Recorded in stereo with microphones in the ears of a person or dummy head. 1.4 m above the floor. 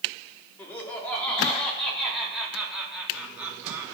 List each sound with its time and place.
0.6 s laughter: 15° left (ahead or behind), 4 m; by 3.9 s 5° right (ahead or behind), 3 m